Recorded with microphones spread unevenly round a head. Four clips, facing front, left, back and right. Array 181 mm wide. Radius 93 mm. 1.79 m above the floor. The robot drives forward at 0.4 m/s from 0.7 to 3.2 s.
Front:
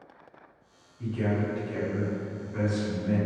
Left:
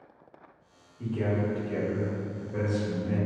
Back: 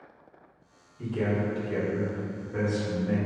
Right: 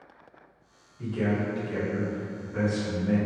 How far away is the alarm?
I don't hear an alarm.